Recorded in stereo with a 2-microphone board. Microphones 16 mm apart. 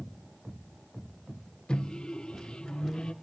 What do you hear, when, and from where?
1.7 s a microwave: 70° left (ahead or behind), 1.2 m